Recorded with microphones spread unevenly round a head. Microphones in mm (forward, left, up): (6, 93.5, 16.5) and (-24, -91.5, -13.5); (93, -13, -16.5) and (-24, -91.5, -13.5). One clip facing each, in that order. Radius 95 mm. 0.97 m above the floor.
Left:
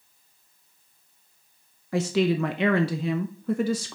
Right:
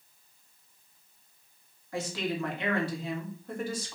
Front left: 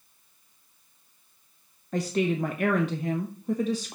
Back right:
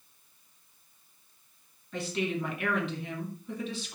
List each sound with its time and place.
1.9 s a woman speaking: 80° left, 0.9 m